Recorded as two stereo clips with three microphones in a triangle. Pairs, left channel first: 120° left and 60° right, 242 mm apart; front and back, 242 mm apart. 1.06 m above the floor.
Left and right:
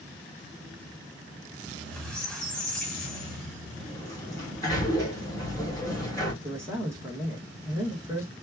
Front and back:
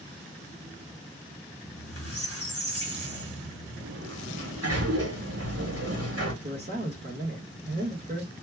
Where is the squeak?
30° left, 1.9 m.